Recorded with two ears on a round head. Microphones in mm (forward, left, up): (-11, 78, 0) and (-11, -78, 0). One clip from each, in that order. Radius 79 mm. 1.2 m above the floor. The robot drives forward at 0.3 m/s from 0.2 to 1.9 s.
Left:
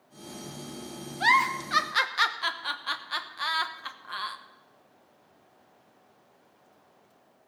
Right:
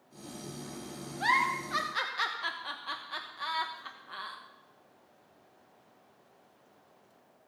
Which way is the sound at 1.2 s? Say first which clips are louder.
Left 5 dB; 30° left (ahead or behind).